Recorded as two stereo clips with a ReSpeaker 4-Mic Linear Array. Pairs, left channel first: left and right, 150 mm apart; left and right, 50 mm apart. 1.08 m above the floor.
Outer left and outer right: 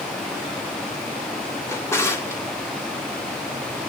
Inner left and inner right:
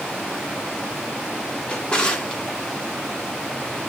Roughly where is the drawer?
Centre.